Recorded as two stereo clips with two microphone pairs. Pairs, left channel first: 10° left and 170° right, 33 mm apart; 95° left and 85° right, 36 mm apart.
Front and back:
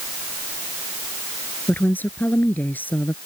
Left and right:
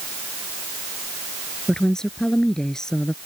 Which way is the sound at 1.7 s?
20° left.